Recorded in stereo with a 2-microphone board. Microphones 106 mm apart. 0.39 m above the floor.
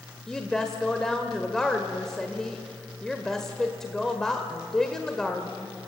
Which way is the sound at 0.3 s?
5° left (ahead or behind).